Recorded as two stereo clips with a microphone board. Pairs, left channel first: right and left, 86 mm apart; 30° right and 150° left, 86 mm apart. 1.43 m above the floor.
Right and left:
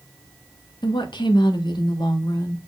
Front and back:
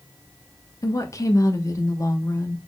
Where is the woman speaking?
75° right, 1.2 m.